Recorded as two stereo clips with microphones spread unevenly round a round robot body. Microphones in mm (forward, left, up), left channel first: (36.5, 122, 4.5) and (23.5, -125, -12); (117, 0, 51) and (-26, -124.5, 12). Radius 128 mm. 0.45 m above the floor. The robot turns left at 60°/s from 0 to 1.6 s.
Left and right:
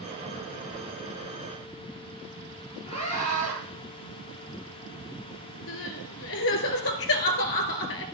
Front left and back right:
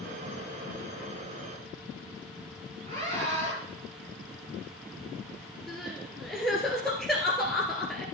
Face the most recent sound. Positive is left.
turn(degrees=125)